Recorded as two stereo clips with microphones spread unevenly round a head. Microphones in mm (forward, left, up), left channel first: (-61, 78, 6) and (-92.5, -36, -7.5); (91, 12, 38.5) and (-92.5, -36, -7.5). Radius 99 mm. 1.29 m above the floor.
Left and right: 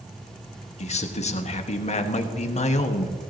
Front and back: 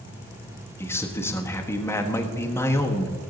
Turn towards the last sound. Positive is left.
turn(degrees=100)